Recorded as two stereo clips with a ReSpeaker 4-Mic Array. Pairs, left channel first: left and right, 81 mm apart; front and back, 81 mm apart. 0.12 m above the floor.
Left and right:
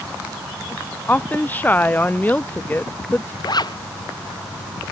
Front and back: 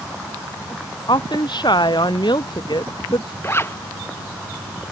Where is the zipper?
60° left.